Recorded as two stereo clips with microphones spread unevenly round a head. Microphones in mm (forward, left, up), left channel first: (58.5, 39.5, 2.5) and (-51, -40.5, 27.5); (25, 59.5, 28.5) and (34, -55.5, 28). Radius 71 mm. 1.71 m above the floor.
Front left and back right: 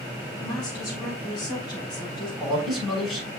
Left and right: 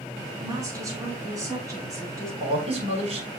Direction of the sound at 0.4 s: 25° right.